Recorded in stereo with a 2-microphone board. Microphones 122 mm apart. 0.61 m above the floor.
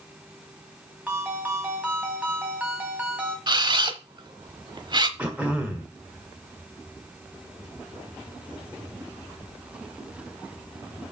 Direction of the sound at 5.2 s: 10° right (ahead or behind).